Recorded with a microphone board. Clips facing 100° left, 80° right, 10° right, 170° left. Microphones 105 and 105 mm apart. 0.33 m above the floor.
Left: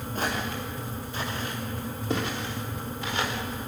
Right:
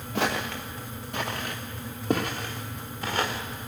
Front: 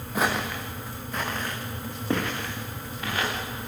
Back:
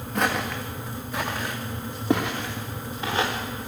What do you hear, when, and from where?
0.1 s footsteps: 95° right, 2.5 m; by 3.4 s 125° right, 3 m